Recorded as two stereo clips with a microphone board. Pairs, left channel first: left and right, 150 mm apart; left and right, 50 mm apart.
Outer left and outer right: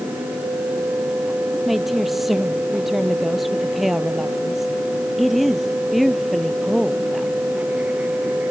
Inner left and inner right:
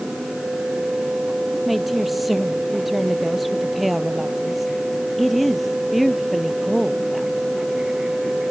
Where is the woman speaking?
Centre (ahead or behind).